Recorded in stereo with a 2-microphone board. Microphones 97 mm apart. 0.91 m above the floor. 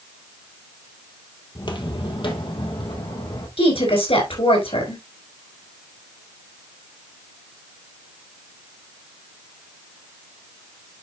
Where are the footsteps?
50° left (ahead or behind), 1.4 m; by 3.5 s 60° left (ahead or behind), 3 m.